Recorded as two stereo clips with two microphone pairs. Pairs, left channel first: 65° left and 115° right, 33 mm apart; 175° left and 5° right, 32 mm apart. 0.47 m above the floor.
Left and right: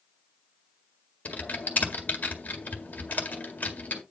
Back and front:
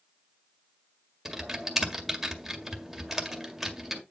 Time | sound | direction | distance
1.2 | typing on a keyboard | 75° left | 1.8 m